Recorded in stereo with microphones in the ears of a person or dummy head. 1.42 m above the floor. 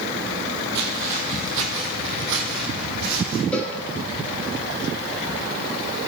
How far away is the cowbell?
About 4 m.